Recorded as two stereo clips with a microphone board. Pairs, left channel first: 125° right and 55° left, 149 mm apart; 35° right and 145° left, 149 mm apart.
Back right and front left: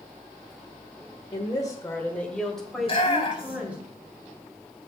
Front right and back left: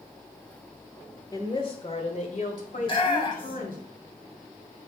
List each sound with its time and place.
1.3 s a woman speaking: 85° right, 1.4 m; by 3.8 s 25° right, 3.5 m
2.8 s a shout: 80° right, 2 m